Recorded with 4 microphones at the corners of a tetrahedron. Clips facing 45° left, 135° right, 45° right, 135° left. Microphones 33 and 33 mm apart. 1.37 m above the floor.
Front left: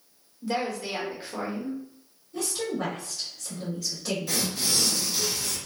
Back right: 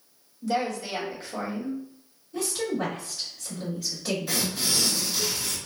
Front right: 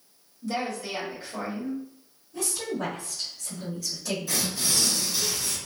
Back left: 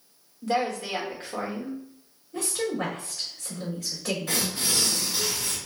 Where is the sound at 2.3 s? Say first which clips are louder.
Back right 2 dB, back left 3 dB; 140° left, 2 m.